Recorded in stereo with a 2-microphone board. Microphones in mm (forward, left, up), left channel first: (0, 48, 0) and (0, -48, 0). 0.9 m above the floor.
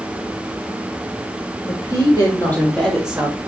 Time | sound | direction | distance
1.7 | a woman speaking | 40° left (ahead or behind) | 3 m